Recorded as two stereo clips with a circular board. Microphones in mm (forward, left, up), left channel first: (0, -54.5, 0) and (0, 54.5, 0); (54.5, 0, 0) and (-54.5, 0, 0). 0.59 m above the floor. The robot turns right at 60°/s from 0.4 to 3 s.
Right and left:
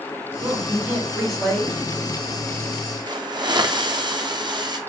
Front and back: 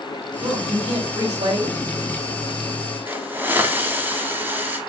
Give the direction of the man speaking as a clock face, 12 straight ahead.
8 o'clock.